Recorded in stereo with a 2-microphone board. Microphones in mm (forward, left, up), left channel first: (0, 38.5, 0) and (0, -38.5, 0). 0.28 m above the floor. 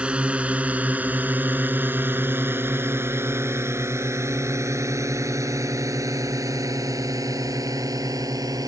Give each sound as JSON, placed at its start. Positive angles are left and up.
{"t": 0.0, "sound": "a drone", "side_deg": -15}